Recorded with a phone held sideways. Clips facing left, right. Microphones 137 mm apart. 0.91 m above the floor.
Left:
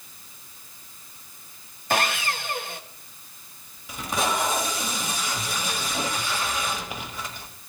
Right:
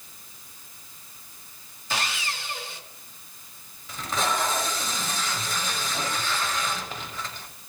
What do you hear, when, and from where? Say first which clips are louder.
1.9 s sawing: left 6 dB; 50° left (ahead or behind), 0.7 m
3.9 s tape being pulled: left 1 dB; 10° left (ahead or behind), 1.2 m